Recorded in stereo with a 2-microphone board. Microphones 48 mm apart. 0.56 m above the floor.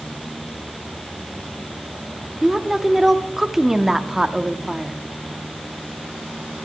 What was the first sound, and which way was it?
A woman speaking, 5° right (ahead or behind).